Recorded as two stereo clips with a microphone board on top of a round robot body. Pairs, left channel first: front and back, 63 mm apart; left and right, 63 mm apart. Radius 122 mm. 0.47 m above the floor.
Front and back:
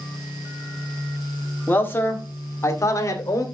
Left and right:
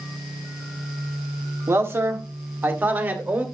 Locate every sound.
1.7 s a man speaking: 55° right, 1.7 m; by 3.5 s 30° right, 2.5 m